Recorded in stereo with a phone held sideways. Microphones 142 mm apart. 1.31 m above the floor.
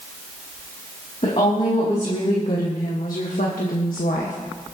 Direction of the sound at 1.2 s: 45° left (ahead or behind).